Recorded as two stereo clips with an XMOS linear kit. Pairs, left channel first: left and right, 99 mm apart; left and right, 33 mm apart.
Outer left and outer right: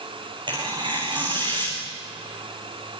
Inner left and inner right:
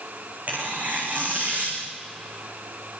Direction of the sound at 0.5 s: 50° right (ahead or behind).